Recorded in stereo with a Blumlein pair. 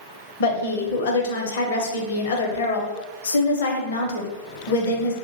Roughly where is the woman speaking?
Ahead left.